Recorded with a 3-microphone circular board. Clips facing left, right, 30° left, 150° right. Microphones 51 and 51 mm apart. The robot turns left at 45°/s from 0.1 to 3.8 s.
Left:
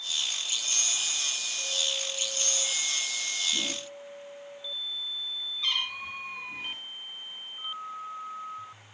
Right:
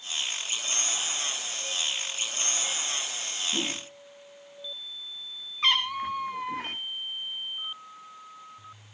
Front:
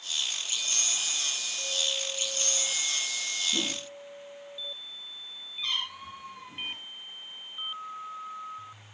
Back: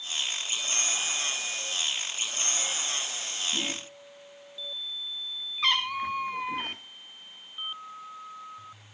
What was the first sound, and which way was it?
A whoosh, 30° right.